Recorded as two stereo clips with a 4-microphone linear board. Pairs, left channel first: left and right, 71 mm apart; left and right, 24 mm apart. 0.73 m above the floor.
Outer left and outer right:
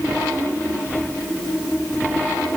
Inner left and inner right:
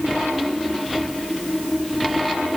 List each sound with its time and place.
Only background noise.